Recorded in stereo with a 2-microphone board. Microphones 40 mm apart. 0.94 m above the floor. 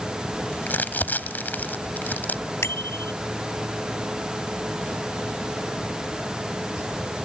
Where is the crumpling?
45° left (ahead or behind).